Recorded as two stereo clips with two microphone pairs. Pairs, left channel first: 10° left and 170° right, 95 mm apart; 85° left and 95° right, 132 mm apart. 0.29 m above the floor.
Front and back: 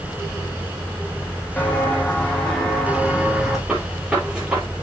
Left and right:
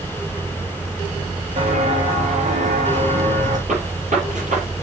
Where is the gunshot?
90° right, 6.5 m.